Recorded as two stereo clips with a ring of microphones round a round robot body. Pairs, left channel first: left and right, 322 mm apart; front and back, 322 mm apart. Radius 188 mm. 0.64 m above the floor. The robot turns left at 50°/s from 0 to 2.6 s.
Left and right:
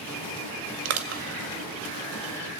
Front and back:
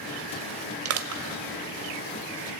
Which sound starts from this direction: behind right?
Crushing, at 0.8 s.